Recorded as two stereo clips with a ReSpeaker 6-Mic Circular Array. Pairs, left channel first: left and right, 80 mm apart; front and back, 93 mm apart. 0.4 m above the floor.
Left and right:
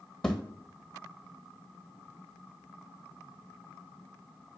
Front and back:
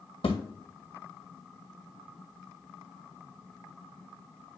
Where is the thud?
5° left, 1.8 m.